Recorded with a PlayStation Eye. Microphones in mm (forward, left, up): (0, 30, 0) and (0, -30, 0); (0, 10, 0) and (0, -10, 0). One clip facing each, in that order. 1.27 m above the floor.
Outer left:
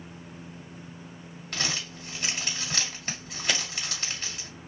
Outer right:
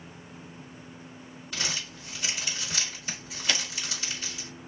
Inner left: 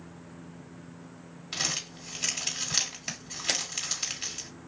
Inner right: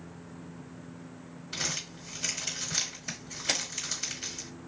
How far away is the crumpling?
About 1.9 m.